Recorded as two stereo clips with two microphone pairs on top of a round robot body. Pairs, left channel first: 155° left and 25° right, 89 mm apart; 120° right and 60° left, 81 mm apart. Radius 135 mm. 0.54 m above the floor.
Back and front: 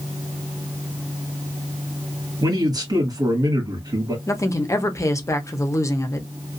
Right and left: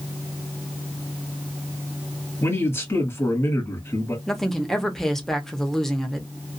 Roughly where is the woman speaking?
Behind.